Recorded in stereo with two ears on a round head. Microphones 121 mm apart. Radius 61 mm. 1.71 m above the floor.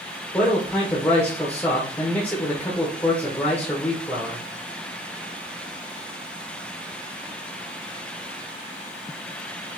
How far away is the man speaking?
About 1.2 m.